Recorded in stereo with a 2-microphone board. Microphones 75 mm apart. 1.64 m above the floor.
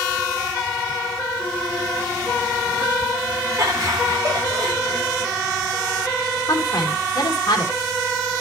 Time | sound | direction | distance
3.6 | laughter | 40° right (ahead or behind) | 4 m
6.5 | a woman speaking | 60° left (ahead or behind) | 2.5 m